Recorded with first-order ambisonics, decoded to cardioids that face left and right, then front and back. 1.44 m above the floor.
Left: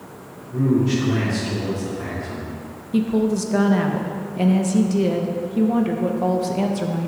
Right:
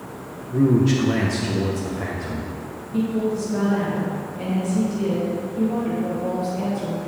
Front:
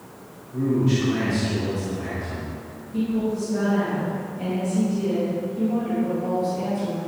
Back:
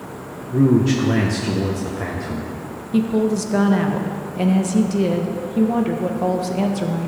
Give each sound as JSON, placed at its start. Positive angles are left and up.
{"t": 0.5, "sound": "a man speaking", "azimuth_deg": -160, "distance_m": 1.3}
{"t": 2.9, "sound": "a woman speaking", "azimuth_deg": 145, "distance_m": 1.2}